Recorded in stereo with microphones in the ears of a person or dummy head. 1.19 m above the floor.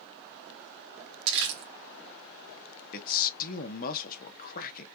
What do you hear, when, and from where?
1.3 s crumpling: 55° right (ahead or behind), 1.4 m
2.9 s a man speaking: 50° left (ahead or behind), 0.9 m